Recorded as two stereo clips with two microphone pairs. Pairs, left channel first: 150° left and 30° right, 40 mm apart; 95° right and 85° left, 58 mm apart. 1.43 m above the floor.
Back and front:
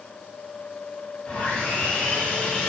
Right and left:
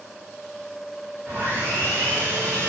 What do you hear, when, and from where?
1.3 s sawing: 115° left, 1.5 m